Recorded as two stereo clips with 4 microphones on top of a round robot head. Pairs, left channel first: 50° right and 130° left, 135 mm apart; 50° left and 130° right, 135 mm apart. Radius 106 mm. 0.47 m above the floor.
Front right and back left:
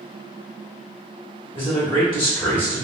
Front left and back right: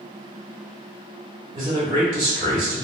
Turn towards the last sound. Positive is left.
turn(degrees=-95)